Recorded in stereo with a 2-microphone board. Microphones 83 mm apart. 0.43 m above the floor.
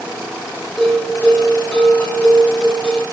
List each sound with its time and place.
0.8 s a bell: 20° left (ahead or behind), 4 m